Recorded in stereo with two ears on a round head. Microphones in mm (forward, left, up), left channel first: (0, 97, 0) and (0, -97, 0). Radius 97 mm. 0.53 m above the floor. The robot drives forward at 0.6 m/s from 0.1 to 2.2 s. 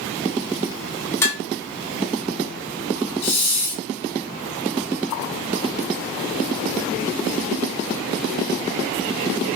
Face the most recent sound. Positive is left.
turn(degrees=30)  # may be behind; listen again after turning